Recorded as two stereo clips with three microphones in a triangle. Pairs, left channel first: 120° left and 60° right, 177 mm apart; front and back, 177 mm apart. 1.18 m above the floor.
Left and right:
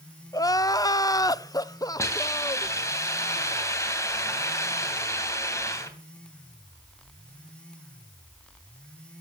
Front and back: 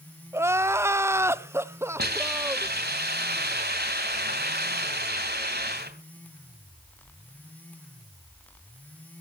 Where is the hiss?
165° right, 2.5 m.